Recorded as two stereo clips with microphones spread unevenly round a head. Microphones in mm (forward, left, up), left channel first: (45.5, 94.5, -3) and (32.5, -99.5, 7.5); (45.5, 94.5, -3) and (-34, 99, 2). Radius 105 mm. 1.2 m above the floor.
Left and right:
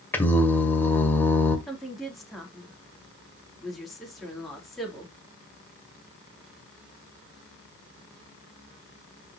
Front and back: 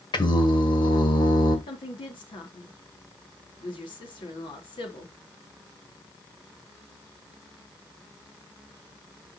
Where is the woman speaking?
5° right, 3 m.